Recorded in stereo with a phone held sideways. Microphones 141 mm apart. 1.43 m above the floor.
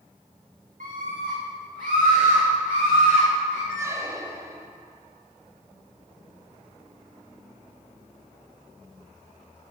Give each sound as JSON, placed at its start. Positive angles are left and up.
{"t": 0.8, "sound": "a scream", "side_deg": -75, "distance_m": 1.6}
{"t": 3.7, "sound": "a squeak", "side_deg": -20, "distance_m": 1.0}